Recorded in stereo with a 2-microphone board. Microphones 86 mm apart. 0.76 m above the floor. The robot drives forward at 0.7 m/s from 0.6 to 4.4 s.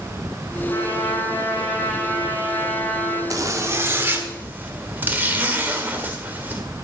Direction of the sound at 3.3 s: 40° right (ahead or behind).